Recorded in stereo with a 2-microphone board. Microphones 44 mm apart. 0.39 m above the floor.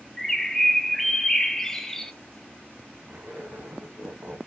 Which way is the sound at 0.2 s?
5° left (ahead or behind).